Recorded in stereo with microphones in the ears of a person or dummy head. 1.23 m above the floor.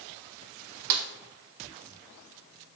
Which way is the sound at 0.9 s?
60° right (ahead or behind).